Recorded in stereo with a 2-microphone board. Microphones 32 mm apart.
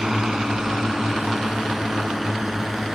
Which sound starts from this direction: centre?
A drone, at 0.0 s.